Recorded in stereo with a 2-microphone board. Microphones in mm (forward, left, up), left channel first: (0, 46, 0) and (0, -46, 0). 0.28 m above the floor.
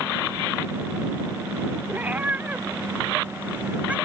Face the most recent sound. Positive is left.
turn(degrees=-15)  # may be behind; listen again after turning